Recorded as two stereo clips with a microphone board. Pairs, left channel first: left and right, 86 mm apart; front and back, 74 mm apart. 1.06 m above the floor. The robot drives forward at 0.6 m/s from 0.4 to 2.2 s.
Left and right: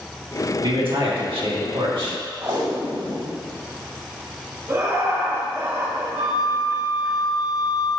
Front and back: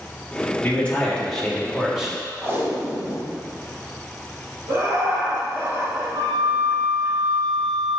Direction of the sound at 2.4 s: 125° right.